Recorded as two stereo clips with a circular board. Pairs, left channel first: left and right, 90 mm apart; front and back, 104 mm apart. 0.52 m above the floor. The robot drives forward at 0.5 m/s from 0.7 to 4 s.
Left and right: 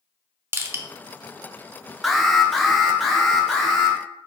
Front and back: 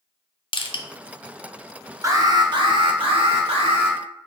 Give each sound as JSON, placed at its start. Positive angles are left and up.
{"t": 0.5, "sound": "crushing", "azimuth_deg": -25, "distance_m": 0.6}
{"t": 2.0, "sound": "an alarm", "azimuth_deg": 180, "distance_m": 0.6}